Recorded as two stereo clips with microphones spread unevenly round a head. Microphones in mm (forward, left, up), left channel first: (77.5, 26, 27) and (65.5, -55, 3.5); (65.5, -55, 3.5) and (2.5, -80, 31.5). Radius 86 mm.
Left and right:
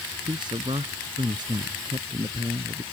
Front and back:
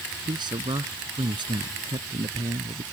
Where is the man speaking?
155° right; by 2.8 s 160° right.